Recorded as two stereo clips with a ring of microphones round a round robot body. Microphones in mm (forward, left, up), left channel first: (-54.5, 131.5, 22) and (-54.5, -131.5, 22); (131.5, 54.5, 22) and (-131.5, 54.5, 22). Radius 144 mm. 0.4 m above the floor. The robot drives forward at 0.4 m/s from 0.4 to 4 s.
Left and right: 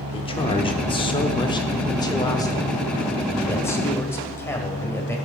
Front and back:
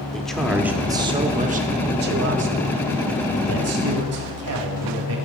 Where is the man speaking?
85° left, 0.8 m; by 5.2 s 170° left, 1.6 m.